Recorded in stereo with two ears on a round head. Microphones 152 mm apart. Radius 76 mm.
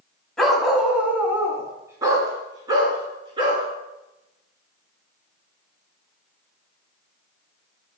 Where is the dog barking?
5° left (ahead or behind), 1.1 m; by 3.6 s 30° right (ahead or behind), 2.5 m.